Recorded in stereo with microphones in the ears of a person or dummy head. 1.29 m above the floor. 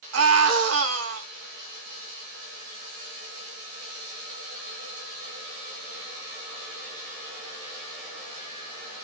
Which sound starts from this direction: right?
A scream, at 0.1 s.